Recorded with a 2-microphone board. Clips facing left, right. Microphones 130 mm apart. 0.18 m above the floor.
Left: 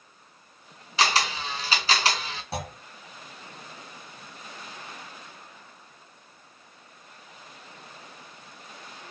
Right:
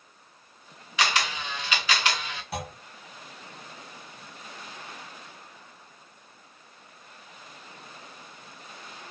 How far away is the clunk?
About 1.0 m.